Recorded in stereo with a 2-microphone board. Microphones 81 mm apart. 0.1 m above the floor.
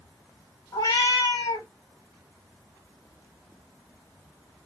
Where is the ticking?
No ticking in this recording.